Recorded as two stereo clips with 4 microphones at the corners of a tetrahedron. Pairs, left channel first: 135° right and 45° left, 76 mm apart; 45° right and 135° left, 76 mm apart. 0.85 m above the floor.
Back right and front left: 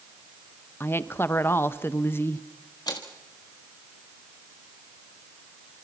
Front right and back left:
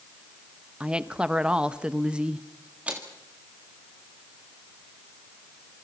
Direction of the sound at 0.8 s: 160° right.